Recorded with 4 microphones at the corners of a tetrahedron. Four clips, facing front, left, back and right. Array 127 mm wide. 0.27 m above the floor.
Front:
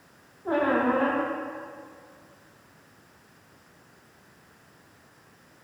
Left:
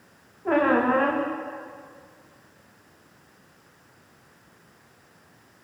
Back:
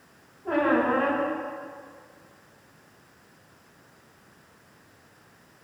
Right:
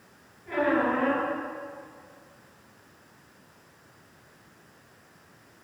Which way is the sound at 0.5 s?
75° left.